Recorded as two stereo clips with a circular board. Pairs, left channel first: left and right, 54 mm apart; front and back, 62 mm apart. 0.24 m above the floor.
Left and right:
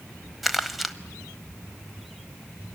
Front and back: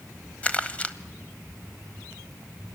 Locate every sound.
0.4 s crumpling: 5° right, 0.8 m